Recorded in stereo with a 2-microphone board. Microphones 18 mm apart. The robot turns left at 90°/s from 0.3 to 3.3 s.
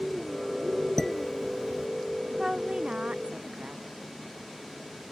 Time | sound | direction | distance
1.0 | dishes clattering | 25° left (ahead or behind) | ?
2.4 | a woman speaking | 15° right | ?